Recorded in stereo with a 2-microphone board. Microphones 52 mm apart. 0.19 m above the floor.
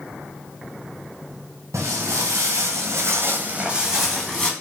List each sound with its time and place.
1.7 s footsteps: 75° right (ahead or behind), 1.0 m; by 4.5 s 10° left (ahead or behind), 0.8 m